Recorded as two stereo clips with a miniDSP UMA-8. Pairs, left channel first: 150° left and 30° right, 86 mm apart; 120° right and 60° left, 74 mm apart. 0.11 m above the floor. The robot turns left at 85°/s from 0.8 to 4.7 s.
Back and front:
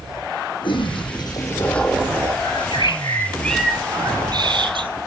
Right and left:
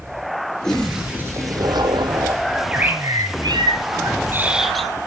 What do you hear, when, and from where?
0.6 s a toilet flushing: 155° left, 2.5 m; by 2.3 s 25° left, 2.5 m
2.4 s a bird: 160° left, 1.5 m; by 4.9 s 30° right, 1.5 m